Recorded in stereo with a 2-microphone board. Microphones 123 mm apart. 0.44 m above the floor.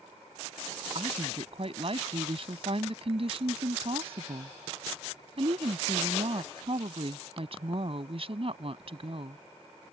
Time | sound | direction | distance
0.9 | a woman speaking | 50° right (ahead or behind) | ?